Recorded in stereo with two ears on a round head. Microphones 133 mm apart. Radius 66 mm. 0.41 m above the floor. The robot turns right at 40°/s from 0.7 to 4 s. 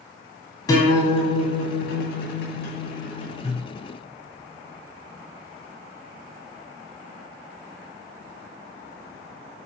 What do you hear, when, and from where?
0.7 s a guitar: 25° left, 2 m; by 3.6 s 145° left, 2 m